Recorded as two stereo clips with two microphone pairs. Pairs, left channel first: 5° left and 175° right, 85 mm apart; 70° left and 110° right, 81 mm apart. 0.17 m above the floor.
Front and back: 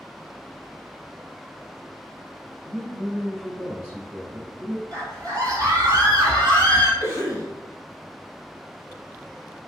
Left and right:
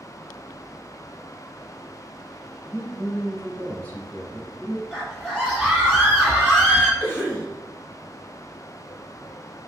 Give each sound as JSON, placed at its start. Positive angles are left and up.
{"t": 2.6, "sound": "a man speaking", "azimuth_deg": 125, "distance_m": 1.5}
{"t": 4.9, "sound": "a scream", "azimuth_deg": 155, "distance_m": 1.5}
{"t": 7.0, "sound": "a cough", "azimuth_deg": 25, "distance_m": 1.8}